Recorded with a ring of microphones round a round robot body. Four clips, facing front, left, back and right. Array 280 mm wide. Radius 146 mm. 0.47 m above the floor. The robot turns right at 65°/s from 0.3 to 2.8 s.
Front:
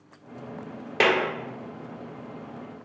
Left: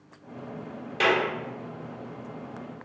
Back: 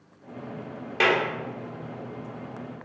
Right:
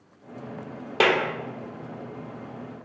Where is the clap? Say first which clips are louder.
Right 2 dB, front 1 dB; 60° right, 1.4 m; by 1.2 s 45° right, 1.4 m.